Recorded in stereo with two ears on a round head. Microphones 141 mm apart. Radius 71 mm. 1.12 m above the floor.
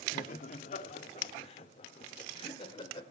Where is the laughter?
55° left (ahead or behind), 2 m; by 3.0 s 35° left (ahead or behind), 3.5 m.